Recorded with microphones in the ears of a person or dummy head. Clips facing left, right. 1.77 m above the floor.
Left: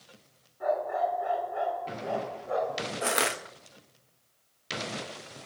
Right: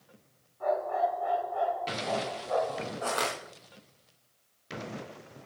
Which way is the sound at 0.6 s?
20° left (ahead or behind).